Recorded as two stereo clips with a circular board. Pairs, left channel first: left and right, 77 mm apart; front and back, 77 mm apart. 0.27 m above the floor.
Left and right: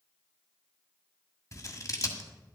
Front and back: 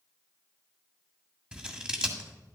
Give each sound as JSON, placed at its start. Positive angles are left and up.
{"t": 1.5, "sound": "scissors", "azimuth_deg": 105, "distance_m": 1.6}